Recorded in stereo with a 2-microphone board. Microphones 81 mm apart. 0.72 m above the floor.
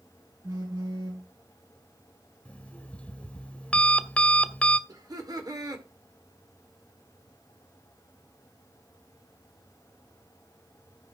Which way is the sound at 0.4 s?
55° right (ahead or behind).